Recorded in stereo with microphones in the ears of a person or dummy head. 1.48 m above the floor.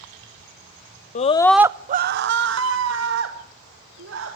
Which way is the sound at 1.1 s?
35° left (ahead or behind).